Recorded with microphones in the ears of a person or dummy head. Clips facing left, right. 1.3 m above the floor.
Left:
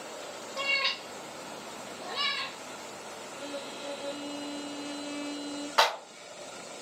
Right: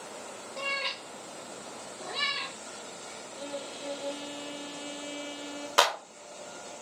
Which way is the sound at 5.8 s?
45° right (ahead or behind).